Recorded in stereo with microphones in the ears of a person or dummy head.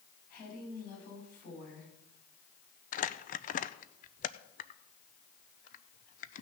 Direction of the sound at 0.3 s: 50° left (ahead or behind).